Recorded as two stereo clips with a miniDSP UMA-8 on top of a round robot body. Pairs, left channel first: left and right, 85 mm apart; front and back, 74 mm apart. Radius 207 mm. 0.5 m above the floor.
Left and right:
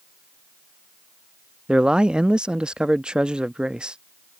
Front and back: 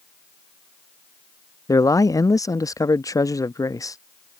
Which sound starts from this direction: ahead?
A man speaking, at 1.7 s.